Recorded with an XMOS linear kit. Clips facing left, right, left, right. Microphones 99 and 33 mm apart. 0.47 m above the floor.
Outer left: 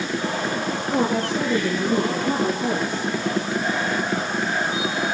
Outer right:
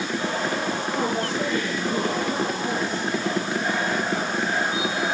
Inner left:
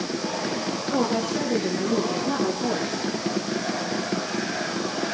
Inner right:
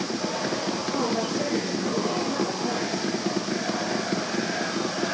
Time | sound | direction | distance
0.9 | a woman speaking | 60° left (ahead or behind) | 8.5 m